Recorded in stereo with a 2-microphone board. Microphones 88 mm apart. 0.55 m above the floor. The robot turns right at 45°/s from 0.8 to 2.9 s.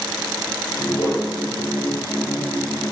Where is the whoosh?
75° left (ahead or behind), 10 m; by 1.3 s 60° left (ahead or behind), 10 m.